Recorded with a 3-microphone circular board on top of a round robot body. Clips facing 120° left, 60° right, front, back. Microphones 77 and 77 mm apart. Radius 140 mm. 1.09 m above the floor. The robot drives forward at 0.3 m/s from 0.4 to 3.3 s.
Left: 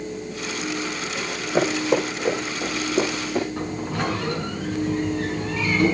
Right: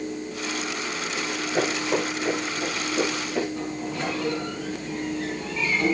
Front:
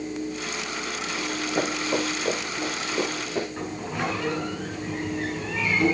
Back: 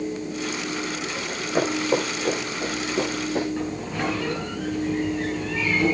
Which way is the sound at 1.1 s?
130° left.